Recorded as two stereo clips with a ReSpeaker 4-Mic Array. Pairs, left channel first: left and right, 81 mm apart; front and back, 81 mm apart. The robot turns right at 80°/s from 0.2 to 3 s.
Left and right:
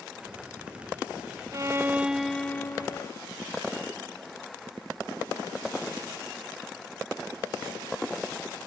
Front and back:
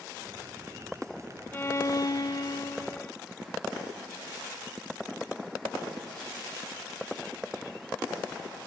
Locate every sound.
1.5 s a violin: 60° right; by 3.1 s 60° left